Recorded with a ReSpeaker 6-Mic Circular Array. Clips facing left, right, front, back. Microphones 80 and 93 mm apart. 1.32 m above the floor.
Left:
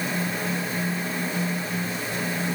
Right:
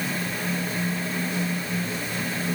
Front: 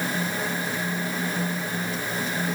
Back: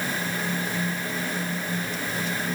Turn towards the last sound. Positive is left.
No sound to turn to.